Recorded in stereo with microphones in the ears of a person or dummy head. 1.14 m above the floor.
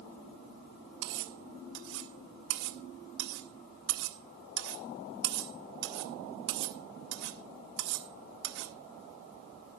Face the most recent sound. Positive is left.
turn(degrees=-60)  # may be behind; listen again after turning